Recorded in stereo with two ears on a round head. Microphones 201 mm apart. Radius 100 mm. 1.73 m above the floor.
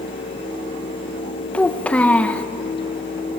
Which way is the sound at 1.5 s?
5° left (ahead or behind).